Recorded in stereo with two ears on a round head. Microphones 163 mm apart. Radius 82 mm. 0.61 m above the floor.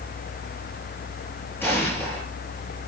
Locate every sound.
1.6 s an explosion: 10° left (ahead or behind), 9.5 m